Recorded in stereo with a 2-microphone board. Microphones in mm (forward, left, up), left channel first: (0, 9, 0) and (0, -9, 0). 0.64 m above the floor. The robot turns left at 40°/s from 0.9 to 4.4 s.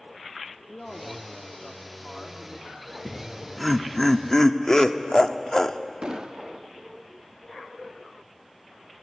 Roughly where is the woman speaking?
Behind left.